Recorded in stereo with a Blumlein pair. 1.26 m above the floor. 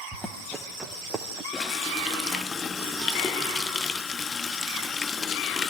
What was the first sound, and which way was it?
Running footsteps, straight ahead.